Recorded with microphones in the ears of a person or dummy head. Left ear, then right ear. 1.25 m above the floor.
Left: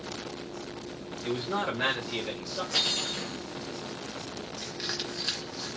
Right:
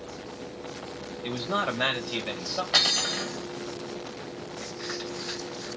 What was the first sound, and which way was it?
A man speaking, 25° right (ahead or behind).